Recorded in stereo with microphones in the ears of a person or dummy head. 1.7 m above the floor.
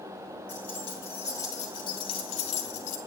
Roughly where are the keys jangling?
Left.